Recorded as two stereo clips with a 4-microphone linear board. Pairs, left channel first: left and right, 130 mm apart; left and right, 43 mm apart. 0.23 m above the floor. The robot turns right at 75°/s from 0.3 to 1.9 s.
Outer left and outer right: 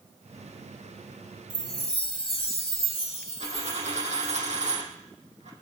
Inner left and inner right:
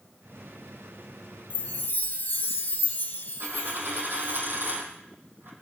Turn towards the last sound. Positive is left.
turn(degrees=-60)  # may be behind; listen again after turning